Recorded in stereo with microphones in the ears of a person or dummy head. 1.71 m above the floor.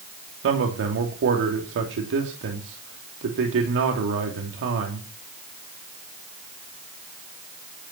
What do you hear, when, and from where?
0.4 s a man speaking: 65° right (ahead or behind), 3 m